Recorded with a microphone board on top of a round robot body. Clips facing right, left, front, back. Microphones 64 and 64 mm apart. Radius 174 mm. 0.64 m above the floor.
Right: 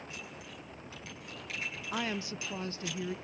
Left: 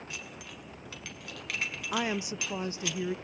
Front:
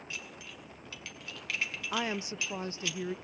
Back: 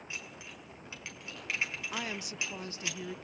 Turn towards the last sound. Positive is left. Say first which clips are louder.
# left 4 dB, front 5 dB
turn(degrees=35)